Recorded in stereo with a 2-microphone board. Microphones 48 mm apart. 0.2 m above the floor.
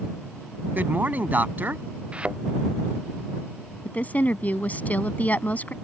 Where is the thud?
25° right (ahead or behind).